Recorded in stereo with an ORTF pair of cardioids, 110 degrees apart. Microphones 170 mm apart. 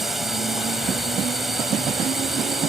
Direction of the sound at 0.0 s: Straight ahead.